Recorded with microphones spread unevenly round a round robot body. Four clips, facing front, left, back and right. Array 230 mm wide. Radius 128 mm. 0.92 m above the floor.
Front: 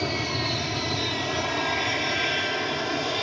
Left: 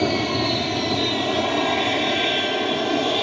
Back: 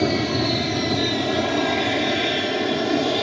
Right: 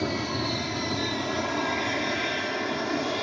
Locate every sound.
0.0 s an aircraft: 155° left; by 3.2 s 160° left